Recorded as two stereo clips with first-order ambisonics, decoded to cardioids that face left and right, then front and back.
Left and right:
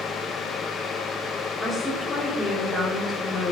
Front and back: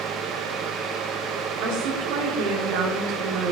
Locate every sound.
1.6 s a woman speaking: 175° left, 2.5 m